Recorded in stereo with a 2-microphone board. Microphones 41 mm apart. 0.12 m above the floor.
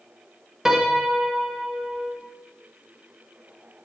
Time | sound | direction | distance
0.7 | a piano | 10° right (ahead or behind) | 1.7 m